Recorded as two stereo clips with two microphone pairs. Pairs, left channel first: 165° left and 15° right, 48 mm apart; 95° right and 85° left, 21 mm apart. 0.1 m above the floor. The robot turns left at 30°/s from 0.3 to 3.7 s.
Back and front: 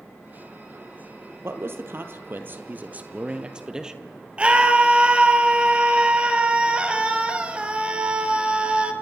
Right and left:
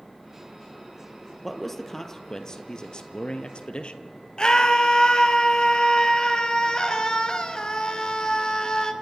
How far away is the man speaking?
About 1.9 m.